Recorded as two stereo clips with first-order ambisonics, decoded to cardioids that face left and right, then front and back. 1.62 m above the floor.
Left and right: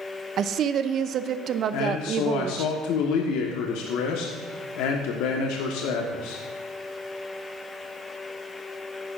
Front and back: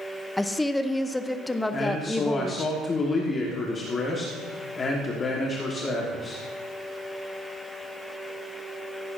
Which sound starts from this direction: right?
A woman speaking, at 0.4 s.